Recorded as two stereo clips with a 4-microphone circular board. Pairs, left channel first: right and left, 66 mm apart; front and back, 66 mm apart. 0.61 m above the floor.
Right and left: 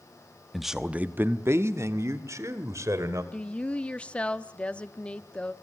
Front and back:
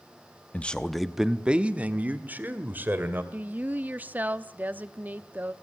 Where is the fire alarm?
No fire alarm in this recording.